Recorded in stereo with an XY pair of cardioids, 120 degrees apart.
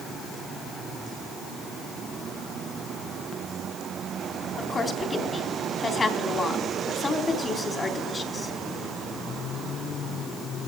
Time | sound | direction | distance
4.6 | a woman speaking | 25° left | 3.5 m